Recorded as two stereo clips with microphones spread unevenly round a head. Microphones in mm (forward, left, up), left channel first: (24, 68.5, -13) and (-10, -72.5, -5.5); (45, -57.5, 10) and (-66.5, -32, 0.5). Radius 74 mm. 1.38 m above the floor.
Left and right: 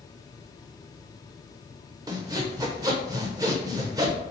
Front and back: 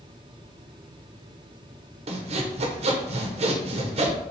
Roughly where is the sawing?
Behind.